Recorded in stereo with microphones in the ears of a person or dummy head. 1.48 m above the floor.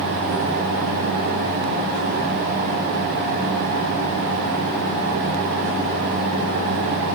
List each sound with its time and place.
Only background noise.